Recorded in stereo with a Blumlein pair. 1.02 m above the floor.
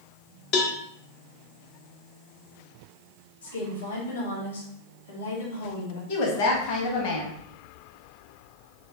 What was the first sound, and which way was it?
A cowbell, 40° left.